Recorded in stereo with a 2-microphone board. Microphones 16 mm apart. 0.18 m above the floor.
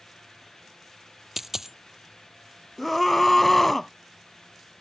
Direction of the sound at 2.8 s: 20° left (ahead or behind).